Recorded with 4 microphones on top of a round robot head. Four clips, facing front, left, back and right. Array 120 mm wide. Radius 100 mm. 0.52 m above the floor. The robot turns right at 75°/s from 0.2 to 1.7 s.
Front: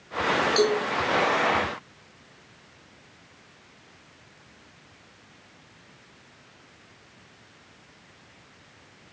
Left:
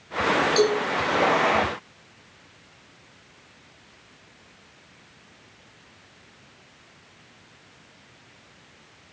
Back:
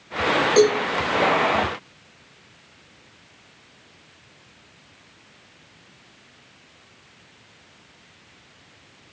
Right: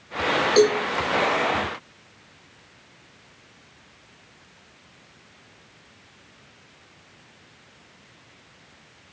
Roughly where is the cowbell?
Behind right.